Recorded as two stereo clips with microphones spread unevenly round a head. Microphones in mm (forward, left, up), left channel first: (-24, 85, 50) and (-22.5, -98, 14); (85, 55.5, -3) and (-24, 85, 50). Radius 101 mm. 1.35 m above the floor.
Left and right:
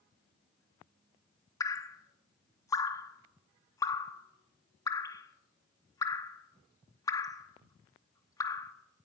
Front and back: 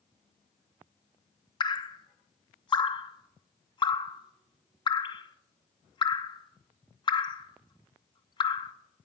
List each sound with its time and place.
1.6 s dripping: 15° left, 0.9 m